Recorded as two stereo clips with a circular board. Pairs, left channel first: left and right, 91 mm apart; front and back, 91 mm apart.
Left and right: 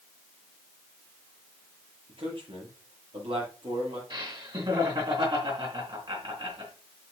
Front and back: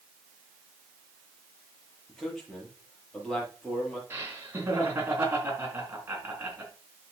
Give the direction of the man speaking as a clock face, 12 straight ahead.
3 o'clock.